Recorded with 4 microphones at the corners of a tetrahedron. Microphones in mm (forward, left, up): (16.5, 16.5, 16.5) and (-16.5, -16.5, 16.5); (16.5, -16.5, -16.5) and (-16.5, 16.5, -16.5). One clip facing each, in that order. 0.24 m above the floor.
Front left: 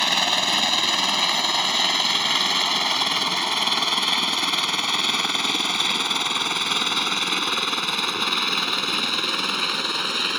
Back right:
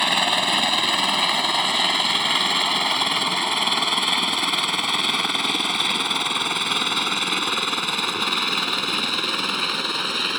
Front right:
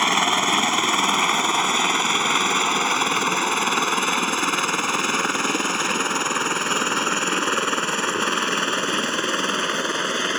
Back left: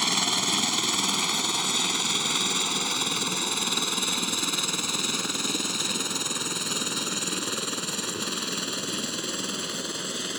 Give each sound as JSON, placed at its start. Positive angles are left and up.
{"t": 0.0, "sound": "a helicopter", "azimuth_deg": -60}